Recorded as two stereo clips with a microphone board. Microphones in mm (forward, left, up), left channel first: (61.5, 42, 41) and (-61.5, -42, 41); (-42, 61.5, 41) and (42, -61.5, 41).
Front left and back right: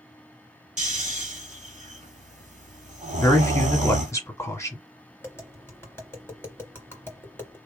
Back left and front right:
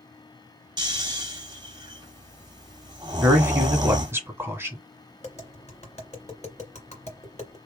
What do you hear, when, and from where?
0.8 s snoring: 115° right, 1.2 m
3.2 s a man speaking: 5° right, 1.5 m
5.2 s tapping: 105° left, 2.5 m